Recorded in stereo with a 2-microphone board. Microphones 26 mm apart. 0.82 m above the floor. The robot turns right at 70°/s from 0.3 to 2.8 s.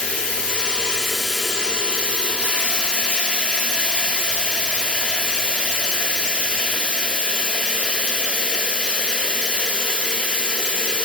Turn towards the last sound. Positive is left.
turn(degrees=-75)